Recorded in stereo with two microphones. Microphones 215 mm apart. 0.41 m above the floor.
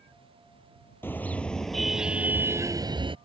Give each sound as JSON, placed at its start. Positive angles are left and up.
{"t": 1.0, "sound": "a car horn", "side_deg": 10}